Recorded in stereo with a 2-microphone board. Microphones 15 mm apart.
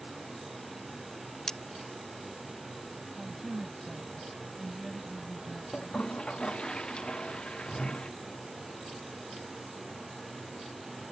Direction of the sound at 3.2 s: 10° right (ahead or behind).